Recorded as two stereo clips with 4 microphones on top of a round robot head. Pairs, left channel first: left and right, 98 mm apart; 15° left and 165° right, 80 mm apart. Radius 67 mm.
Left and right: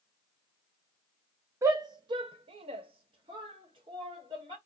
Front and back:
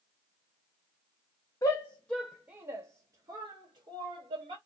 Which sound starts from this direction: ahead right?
A shout, at 1.6 s.